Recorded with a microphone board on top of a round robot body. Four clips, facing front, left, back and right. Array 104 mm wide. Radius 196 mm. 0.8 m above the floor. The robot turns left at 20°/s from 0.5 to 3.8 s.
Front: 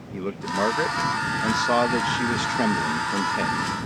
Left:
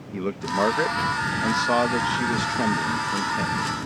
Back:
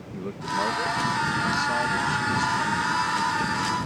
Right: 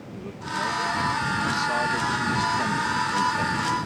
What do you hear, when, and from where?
0.1 s a man speaking: 65° left; by 3.9 s 5° right